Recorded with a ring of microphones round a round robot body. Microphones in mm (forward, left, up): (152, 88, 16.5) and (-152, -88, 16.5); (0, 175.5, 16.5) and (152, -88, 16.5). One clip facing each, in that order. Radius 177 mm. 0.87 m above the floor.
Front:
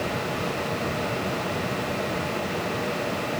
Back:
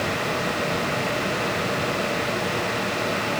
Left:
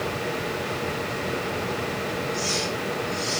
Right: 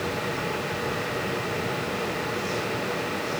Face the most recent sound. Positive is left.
No sound to turn to.